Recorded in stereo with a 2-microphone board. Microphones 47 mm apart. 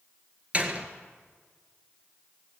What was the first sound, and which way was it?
A door slam, 30° right (ahead or behind).